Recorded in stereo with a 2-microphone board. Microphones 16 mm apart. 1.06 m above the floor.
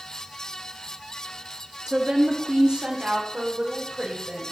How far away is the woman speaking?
About 2 m.